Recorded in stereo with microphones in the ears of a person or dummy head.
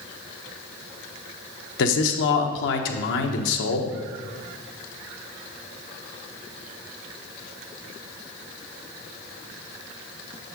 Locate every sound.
1.8 s a man speaking: 70° left (ahead or behind), 1.0 m